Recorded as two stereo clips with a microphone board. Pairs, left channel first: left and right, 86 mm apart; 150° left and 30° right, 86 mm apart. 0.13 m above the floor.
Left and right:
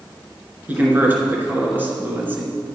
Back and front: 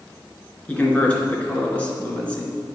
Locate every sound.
0.7 s a man speaking: 145° right, 2 m